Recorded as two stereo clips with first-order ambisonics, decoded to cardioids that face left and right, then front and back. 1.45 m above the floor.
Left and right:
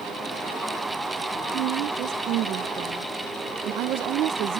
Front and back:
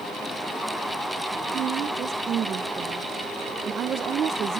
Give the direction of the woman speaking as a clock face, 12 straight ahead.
4 o'clock.